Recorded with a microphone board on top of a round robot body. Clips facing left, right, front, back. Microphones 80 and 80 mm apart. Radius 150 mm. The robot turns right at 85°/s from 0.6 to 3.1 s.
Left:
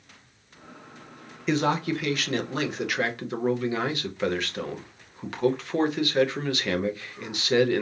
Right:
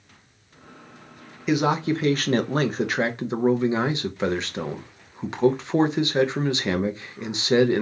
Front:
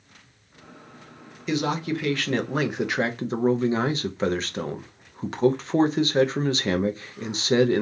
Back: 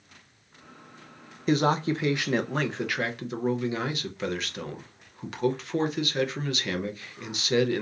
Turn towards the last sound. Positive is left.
turn(degrees=-35)